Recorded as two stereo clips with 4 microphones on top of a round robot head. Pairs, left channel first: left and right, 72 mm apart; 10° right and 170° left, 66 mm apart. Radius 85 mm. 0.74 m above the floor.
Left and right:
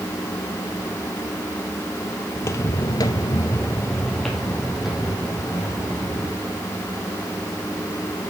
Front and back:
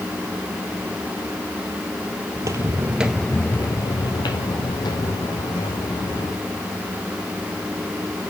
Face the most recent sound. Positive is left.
turn(degrees=-10)